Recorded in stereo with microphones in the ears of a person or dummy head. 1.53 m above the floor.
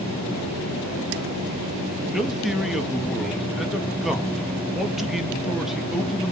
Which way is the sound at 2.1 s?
5° right (ahead or behind).